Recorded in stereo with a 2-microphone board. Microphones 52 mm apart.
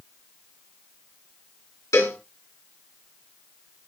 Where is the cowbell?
65° left (ahead or behind), 4 m.